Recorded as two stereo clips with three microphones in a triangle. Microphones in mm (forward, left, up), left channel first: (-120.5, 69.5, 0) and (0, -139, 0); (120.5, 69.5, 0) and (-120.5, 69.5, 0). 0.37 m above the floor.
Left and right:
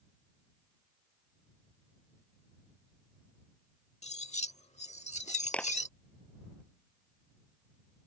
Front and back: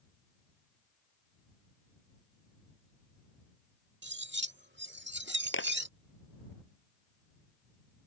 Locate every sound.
4.0 s cutlery clinking: 175° left
5.5 s a clap: 35° left